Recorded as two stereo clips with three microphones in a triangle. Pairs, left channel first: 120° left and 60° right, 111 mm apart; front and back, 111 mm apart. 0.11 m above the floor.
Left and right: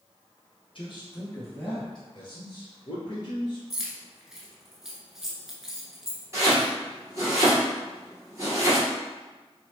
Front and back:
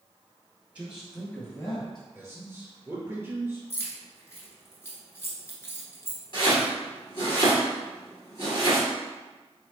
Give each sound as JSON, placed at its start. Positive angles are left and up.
{"t": 0.8, "sound": "a man speaking", "azimuth_deg": 110, "distance_m": 1.7}
{"t": 2.1, "sound": "a man speaking", "azimuth_deg": 125, "distance_m": 1.9}
{"t": 3.7, "sound": "keys jangling", "azimuth_deg": 20, "distance_m": 1.0}
{"t": 6.3, "sound": "chopping", "azimuth_deg": -10, "distance_m": 1.7}